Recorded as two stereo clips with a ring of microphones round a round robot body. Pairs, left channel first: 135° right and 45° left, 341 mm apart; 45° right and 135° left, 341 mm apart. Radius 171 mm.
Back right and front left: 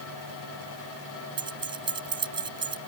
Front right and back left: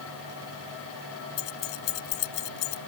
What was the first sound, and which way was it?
Keys jangling, 30° right.